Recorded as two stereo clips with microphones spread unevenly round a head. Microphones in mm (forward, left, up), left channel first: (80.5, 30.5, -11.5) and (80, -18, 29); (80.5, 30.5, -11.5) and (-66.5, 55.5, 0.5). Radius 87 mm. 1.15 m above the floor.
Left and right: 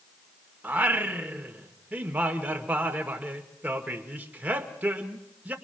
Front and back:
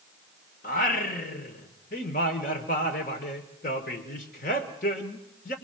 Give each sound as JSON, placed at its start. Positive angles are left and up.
{"t": 0.6, "sound": "singing", "azimuth_deg": -55, "distance_m": 1.7}